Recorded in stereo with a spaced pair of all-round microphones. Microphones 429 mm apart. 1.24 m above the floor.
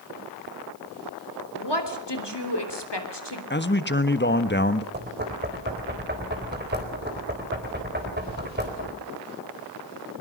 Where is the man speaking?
25° left (ahead or behind), 1.4 m.